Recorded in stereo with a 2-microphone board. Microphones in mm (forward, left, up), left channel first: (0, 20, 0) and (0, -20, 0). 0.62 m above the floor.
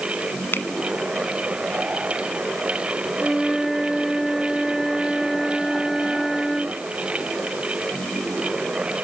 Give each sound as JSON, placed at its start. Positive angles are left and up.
{"t": 0.5, "sound": "a finger snap", "side_deg": 70}
{"t": 3.2, "sound": "a flute", "side_deg": 0}